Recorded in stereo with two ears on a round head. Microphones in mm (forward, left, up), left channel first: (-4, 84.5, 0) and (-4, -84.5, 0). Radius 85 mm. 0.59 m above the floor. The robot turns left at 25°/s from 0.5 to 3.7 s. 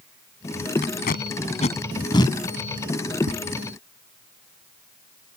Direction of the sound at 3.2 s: 70° right (ahead or behind).